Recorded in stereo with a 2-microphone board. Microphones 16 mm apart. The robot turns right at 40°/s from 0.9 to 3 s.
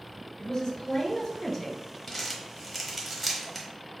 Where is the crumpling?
20° left (ahead or behind), 1.0 m; by 3.7 s centre (ahead or behind), 1.0 m.